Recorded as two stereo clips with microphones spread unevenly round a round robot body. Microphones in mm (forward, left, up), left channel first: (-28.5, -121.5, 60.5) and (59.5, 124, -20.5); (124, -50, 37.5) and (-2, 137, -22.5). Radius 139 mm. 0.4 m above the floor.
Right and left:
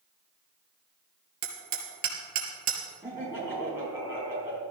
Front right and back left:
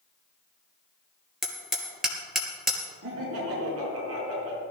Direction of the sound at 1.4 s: 35° left.